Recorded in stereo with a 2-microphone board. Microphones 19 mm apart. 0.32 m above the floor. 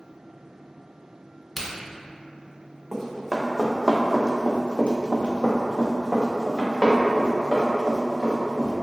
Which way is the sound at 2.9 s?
10° left (ahead or behind).